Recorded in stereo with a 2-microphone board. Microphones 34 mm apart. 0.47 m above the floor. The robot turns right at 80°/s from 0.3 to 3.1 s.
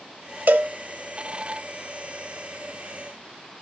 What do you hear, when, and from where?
0.5 s a cowbell: 55° right (ahead or behind), 0.9 m; by 0.7 s 70° right (ahead or behind), 0.9 m